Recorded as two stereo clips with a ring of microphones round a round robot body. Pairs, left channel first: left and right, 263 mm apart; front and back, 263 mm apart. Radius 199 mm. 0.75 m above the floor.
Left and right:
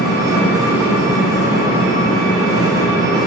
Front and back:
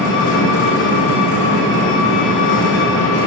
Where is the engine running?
10° right, 1.5 m.